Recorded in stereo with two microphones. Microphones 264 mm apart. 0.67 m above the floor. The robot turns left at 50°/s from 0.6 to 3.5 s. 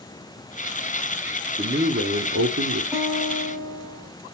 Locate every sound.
1.6 s a man speaking: 30° right, 1.1 m; by 2.8 s 95° right, 1.1 m
2.9 s a guitar: 10° right (ahead or behind), 5 m; by 4.1 s 20° left (ahead or behind), 5 m